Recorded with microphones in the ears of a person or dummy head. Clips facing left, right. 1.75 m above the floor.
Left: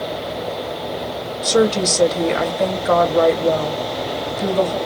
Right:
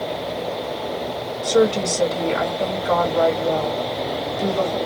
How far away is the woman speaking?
About 1.2 m.